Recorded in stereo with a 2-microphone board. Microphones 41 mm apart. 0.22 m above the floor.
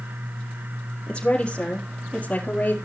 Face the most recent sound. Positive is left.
turn(degrees=40)  # may be behind; listen again after turning